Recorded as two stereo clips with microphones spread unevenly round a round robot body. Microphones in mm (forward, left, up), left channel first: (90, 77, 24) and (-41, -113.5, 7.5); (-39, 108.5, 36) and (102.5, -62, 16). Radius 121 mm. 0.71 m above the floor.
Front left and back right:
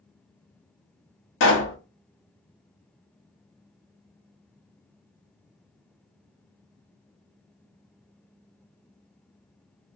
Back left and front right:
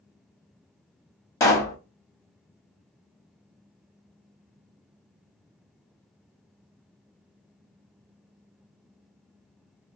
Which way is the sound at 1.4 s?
55° left.